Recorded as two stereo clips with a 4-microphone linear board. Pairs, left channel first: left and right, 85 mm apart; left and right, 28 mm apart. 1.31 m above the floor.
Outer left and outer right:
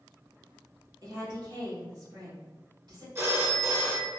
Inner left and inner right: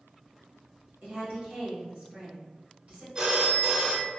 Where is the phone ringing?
30° right (ahead or behind), 0.7 m.